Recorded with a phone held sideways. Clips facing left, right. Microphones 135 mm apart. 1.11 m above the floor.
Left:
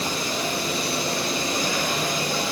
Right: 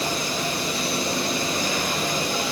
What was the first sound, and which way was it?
Only background noise.